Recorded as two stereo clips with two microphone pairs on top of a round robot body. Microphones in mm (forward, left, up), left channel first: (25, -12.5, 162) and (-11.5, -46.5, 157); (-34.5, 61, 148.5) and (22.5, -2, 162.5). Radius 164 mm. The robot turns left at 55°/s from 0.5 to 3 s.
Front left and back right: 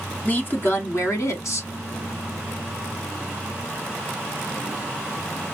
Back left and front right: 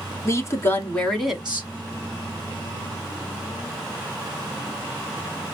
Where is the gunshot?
I don't hear a gunshot.